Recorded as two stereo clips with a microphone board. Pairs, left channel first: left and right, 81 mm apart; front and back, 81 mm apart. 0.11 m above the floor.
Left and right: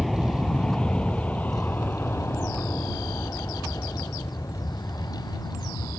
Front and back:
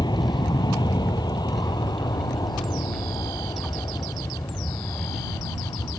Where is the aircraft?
5° left; by 6.0 s 45° left.